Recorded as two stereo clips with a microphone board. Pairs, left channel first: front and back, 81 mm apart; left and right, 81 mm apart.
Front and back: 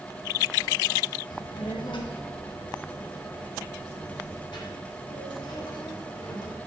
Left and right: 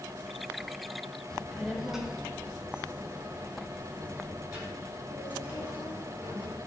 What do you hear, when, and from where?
1.3 s a child speaking: 10° left, 1.1 m; by 6.6 s 25° right, 4.5 m